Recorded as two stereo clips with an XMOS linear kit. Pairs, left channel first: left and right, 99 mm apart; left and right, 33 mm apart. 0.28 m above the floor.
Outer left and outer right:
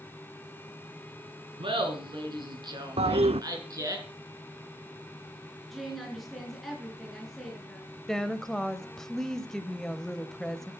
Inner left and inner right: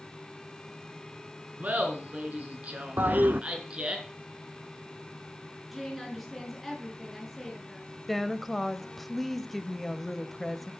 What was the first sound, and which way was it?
Laughter, 55° right (ahead or behind).